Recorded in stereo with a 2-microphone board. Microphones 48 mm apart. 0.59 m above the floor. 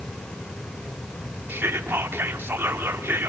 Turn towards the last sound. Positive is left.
turn(degrees=-50)  # may be behind; listen again after turning